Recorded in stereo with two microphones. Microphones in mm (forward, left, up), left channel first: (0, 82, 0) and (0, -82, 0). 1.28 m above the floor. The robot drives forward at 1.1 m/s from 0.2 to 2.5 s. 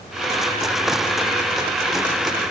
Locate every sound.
Only background noise.